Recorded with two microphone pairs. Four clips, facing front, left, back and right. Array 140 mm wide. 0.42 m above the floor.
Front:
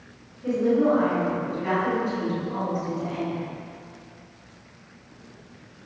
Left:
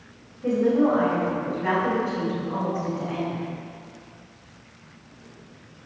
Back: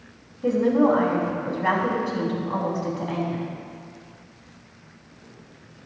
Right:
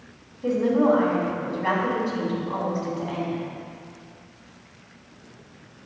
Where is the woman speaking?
165° right, 4 m.